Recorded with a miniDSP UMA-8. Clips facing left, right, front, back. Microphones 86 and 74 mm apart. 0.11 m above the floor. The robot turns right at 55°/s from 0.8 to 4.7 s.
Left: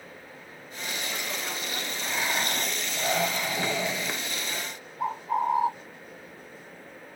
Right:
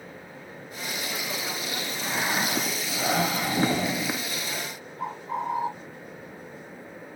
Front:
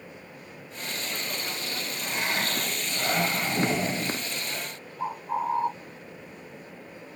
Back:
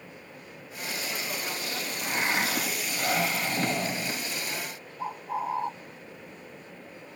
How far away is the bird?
About 3 m.